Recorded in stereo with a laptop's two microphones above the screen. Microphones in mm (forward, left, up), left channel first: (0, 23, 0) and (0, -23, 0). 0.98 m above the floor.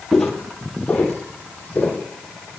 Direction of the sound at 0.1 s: 10° left (ahead or behind).